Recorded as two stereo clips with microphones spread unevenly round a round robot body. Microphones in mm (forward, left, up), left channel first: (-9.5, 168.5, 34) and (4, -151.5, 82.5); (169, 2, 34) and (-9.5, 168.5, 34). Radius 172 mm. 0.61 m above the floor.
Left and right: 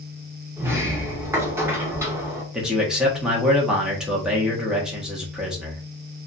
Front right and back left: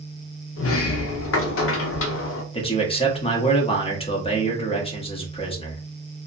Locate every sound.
0.6 s a sliding door: 5° right, 0.6 m
2.5 s a man speaking: 10° left, 0.8 m